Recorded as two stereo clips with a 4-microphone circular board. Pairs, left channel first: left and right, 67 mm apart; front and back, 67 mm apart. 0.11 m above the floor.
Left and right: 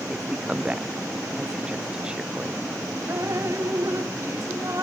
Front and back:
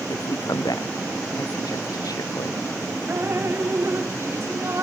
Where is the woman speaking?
15° right.